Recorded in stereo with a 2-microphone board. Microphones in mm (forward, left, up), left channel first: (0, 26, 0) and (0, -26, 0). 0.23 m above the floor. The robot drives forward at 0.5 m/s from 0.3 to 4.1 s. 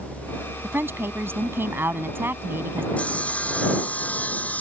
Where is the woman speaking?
45° right (ahead or behind).